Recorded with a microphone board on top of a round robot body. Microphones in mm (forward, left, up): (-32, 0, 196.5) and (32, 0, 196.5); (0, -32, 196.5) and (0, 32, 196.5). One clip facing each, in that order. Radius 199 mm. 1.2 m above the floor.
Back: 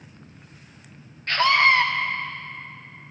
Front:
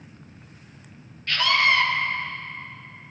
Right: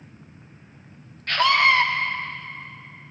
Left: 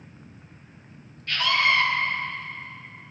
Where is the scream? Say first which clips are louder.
Back 3 dB, right 4 dB; 125° right, 0.6 m.